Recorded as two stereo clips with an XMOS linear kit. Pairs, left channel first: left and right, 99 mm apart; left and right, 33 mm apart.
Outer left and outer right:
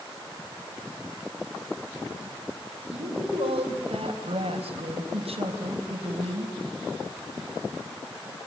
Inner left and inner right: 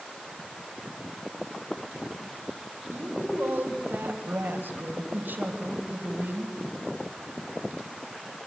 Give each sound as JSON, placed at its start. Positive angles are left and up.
{"t": 2.9, "sound": "a woman speaking", "side_deg": -80, "distance_m": 4.5}